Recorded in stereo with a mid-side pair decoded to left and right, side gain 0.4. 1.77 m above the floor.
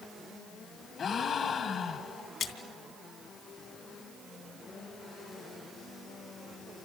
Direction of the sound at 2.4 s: 65° left.